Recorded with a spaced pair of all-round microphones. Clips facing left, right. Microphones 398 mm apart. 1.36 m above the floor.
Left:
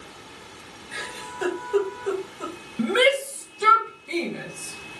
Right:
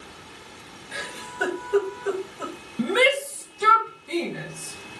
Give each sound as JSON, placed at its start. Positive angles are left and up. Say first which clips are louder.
{"t": 0.9, "sound": "a giggle", "louder": "right 1 dB", "side_deg": -80, "distance_m": 4.0}
{"t": 2.8, "sound": "a shout", "louder": "left 1 dB", "side_deg": -5, "distance_m": 1.4}